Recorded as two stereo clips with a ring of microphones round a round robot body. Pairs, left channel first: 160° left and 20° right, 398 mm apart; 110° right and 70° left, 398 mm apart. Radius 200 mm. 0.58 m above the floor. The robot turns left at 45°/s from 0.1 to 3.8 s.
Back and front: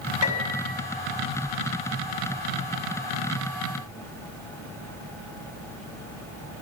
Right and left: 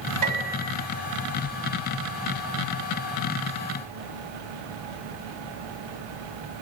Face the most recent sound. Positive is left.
turn(degrees=-50)